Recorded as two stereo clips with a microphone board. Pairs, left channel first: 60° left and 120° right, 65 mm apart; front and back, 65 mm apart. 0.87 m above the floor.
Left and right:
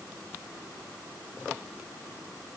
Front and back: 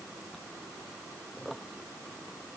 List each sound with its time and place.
Only background noise.